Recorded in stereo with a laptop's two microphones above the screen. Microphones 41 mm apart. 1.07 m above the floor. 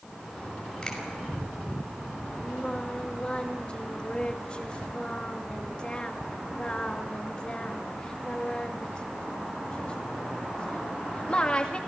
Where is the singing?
25° left (ahead or behind), 1.9 m.